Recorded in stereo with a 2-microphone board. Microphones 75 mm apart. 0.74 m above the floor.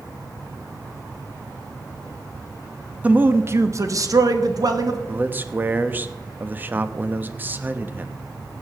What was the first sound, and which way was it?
A man speaking, 20° right (ahead or behind).